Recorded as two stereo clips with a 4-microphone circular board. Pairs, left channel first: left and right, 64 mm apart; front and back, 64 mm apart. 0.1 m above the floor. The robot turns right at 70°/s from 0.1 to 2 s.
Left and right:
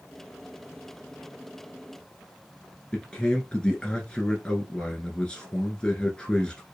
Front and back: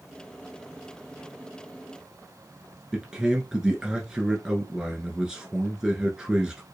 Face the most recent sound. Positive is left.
turn(degrees=125)